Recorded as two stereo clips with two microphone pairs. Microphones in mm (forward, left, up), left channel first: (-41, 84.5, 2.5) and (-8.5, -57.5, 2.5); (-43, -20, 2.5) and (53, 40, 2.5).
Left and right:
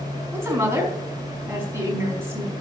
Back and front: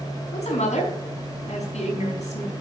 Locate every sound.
0.3 s a woman speaking: 150° right, 4.5 m